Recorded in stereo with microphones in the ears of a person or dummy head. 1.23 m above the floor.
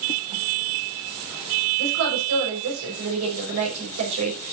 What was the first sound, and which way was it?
A woman speaking, 90° right.